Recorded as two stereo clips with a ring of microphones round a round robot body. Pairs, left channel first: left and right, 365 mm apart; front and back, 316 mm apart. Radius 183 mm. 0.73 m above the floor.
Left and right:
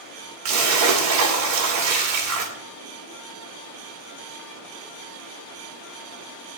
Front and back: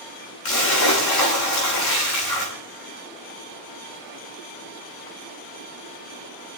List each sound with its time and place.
0.5 s a splash: 45° right, 2.5 m